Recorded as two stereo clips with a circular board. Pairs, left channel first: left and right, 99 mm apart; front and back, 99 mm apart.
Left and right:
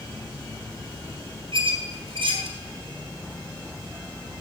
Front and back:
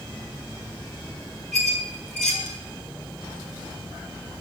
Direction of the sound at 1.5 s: 85° right.